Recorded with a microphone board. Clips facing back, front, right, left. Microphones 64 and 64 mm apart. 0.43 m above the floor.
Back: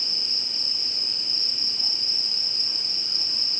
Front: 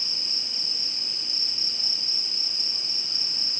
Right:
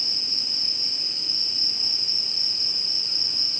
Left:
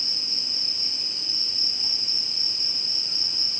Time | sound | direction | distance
0.0 | an insect | 140° right | 7.5 m